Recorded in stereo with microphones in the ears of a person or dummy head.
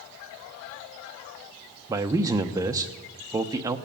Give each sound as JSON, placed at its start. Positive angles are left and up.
{"t": 1.9, "sound": "a man speaking", "side_deg": -15, "distance_m": 0.8}